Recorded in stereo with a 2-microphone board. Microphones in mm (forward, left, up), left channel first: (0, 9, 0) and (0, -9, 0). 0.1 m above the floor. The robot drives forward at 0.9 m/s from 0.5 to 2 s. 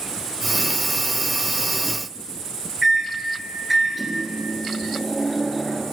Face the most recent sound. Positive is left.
turn(degrees=-5)  # may be behind; listen again after turning